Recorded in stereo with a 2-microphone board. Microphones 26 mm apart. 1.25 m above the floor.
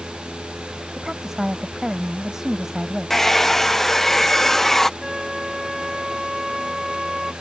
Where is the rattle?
I don't hear a rattle.